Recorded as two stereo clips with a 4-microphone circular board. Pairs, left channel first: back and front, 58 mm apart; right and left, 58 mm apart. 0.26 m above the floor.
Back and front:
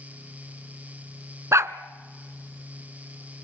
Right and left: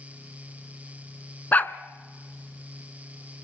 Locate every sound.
1.5 s a dog barking: 30° right, 0.9 m